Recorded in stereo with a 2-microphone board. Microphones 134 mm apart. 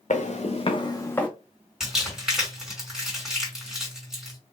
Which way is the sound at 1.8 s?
5° right (ahead or behind).